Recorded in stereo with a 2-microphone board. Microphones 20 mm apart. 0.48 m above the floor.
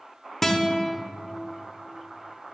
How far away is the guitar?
About 1.2 m.